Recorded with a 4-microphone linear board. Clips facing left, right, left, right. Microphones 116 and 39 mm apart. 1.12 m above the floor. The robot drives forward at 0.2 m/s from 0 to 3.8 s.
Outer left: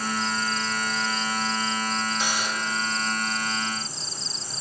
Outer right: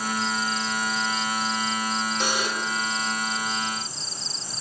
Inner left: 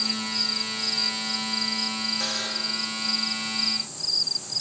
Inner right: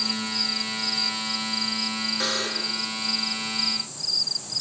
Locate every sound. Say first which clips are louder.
2.2 s a buzzer: outer right 2 dB, inner right 3 dB; 50° right (ahead or behind), 2.5 m